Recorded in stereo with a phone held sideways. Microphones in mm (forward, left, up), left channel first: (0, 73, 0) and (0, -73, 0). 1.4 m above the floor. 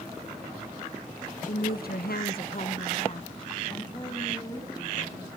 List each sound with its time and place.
1.4 s a woman speaking: 60° left (ahead or behind), 1.6 m; by 5.3 s 25° left (ahead or behind), 4.5 m